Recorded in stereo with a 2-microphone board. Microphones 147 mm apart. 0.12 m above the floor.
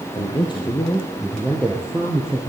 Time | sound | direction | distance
0.1 | a man speaking | 40° left (ahead or behind) | 2.5 m